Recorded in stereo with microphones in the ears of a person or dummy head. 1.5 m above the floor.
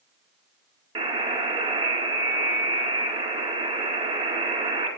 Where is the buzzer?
30° right (ahead or behind), 2.5 m.